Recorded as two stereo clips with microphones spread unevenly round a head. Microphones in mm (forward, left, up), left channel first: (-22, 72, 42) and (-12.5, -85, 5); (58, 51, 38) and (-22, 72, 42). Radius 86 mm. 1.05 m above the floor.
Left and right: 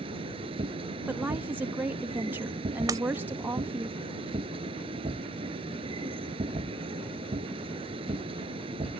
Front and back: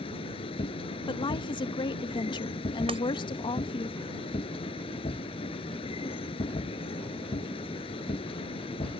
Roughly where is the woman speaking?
Ahead.